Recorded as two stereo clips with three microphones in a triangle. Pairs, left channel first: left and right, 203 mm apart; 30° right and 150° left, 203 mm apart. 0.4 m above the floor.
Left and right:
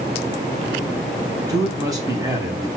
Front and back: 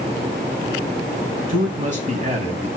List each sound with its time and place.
1.5 s a man speaking: 160° right, 3.5 m